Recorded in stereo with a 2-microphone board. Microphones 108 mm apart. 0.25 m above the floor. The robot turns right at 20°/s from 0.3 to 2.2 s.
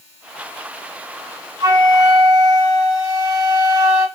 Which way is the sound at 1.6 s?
35° right (ahead or behind).